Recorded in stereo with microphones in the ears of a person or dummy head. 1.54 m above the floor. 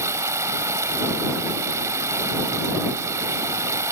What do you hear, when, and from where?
0.0 s running water: 15° right (ahead or behind)